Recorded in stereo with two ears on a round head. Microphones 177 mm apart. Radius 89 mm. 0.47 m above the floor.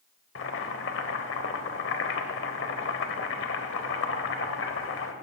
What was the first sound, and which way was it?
Boiling, 65° left (ahead or behind).